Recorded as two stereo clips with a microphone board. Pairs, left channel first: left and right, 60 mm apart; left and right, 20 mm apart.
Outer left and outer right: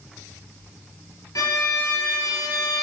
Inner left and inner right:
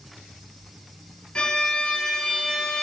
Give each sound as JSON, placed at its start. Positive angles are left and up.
{"t": 1.4, "sound": "a violin", "side_deg": 70, "distance_m": 3.0}